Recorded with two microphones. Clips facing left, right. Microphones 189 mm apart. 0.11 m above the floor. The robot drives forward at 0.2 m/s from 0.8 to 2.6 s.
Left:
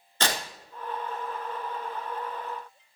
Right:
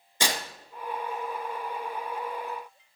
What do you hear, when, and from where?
0.2 s tearing paper: 15° right (ahead or behind), 0.9 m